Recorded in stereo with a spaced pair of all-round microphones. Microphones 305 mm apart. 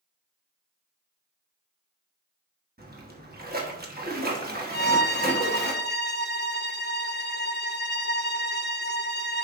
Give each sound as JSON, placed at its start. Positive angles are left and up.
{"t": 2.8, "sound": "a splash", "side_deg": -30, "distance_m": 1.3}
{"t": 4.7, "sound": "a violin", "side_deg": 35, "distance_m": 0.5}